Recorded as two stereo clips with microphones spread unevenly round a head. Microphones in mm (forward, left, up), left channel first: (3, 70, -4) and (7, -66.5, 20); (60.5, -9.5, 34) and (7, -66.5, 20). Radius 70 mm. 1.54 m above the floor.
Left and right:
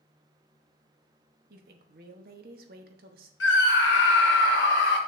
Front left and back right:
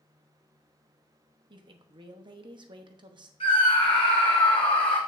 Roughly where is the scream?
Left.